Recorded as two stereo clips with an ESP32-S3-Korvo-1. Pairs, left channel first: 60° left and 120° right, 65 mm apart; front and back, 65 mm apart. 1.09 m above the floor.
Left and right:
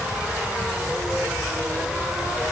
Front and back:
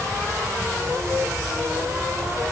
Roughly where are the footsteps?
No footsteps in this recording.